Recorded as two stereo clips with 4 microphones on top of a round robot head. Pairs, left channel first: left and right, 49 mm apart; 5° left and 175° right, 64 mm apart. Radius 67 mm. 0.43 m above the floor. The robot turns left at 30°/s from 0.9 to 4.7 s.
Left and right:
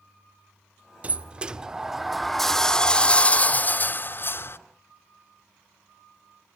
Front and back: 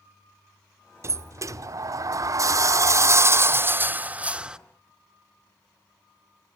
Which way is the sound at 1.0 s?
145° right.